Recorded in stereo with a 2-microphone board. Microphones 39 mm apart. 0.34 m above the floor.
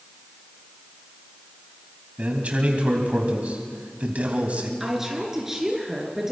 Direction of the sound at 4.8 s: 10° right (ahead or behind).